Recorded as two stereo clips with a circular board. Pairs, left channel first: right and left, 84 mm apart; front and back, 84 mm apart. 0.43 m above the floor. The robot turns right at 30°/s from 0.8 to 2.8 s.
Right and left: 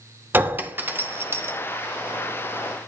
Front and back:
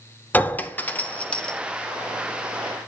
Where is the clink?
50° left, 0.6 m; by 1.6 s 70° left, 0.6 m.